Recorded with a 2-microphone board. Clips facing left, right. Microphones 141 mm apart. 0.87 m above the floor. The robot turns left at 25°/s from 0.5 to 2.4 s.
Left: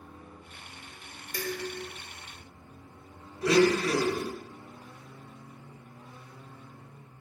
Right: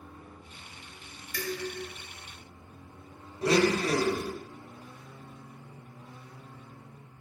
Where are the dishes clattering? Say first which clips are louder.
Even; 40° left (ahead or behind), 0.7 m; by 1.9 s 55° left (ahead or behind), 0.7 m.